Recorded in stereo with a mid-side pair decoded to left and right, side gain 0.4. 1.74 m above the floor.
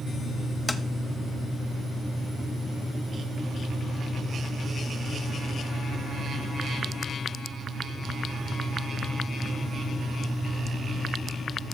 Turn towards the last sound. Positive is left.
turn(degrees=25)